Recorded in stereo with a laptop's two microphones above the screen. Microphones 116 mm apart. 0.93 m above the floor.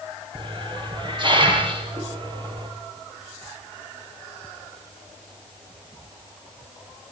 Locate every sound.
0.3 s a hiss: 45° right (ahead or behind), 9 m